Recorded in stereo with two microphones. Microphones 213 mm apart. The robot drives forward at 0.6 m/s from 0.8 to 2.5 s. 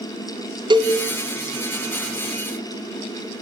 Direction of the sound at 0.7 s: 20° right (ahead or behind).